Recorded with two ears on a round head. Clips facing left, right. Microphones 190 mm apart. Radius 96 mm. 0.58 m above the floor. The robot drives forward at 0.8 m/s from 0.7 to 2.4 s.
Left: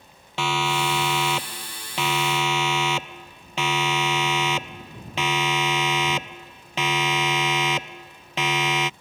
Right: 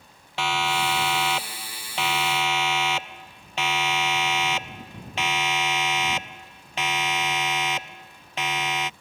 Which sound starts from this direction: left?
A siren, at 0.4 s.